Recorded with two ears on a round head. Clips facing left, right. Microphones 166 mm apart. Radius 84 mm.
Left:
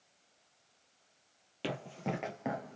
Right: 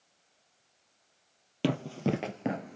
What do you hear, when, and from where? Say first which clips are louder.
1.6 s running footsteps: right 8 dB; 55° right (ahead or behind), 2.5 m; by 2.8 s 25° right (ahead or behind), 1.7 m